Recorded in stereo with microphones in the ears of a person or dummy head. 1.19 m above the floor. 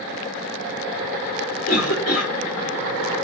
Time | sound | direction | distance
1.6 | a cough | 40° left (ahead or behind) | 1.5 m